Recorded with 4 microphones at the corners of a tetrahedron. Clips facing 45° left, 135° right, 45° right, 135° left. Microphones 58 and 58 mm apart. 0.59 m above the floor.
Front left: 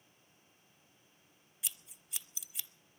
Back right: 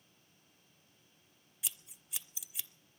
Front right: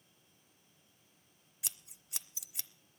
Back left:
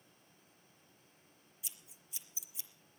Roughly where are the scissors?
Ahead right.